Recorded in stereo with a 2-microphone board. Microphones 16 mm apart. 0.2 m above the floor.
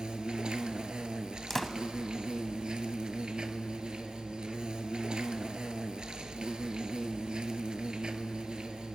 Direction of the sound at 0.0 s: 75° right (ahead or behind).